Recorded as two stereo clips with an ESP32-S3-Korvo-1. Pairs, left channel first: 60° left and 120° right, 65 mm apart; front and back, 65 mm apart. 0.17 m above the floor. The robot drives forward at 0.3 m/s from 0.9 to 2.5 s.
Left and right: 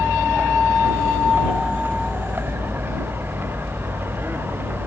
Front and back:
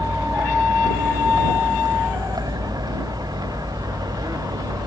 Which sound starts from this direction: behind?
A vehicle, at 0.0 s.